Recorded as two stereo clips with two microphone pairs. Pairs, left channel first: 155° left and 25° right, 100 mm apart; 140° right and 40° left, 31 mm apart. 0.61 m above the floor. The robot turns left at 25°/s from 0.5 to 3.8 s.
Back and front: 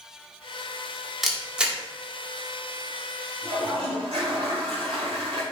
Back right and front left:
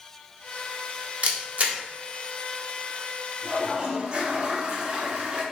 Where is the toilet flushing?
10° right, 4 m; by 5.4 s 15° right, 4 m.